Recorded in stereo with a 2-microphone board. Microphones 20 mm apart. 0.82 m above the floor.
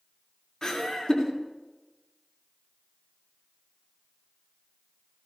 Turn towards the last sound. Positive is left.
turn(degrees=30)  # may be behind; listen again after turning